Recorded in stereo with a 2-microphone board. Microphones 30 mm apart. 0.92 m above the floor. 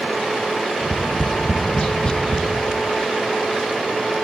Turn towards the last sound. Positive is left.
turn(degrees=35)  # may be behind; listen again after turning